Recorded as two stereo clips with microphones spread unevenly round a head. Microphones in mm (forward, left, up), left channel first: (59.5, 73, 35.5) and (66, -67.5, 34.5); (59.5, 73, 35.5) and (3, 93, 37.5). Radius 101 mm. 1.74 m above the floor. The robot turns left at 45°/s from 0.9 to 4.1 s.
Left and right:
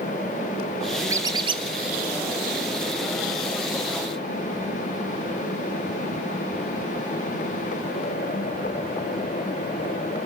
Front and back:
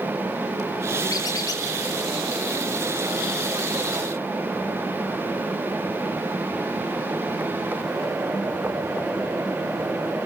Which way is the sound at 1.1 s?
20° right.